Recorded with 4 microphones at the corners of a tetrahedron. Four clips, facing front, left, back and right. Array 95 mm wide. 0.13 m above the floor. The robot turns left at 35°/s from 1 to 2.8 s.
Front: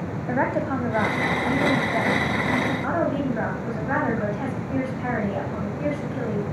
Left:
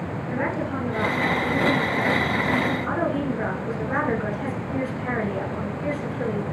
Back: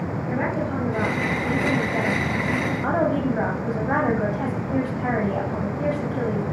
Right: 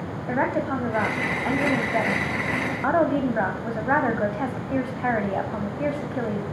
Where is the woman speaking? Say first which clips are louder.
Right 3 dB, front 3 dB; 45° right, 9 m; by 6.4 s 110° right, 9 m.